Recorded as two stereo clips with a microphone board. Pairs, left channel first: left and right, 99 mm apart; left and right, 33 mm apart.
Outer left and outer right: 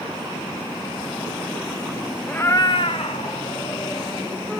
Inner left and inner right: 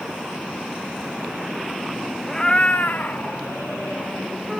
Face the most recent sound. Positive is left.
turn(degrees=75)  # may be behind; listen again after turning